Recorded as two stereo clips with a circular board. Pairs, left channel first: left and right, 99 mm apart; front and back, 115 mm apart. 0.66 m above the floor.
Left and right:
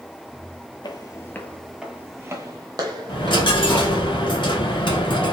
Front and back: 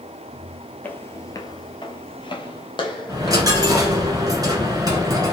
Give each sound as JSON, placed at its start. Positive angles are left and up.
{"t": 0.8, "sound": "footsteps", "azimuth_deg": 70, "distance_m": 0.8}
{"t": 3.1, "sound": "a dropped coin", "azimuth_deg": 125, "distance_m": 1.3}